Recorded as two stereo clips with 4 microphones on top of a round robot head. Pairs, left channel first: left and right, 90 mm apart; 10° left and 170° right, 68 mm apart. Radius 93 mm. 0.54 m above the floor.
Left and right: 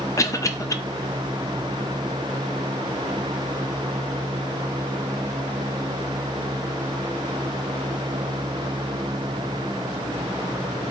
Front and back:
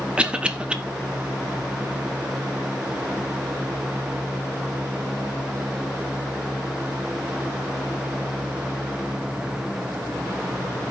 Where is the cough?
120° left, 0.7 m.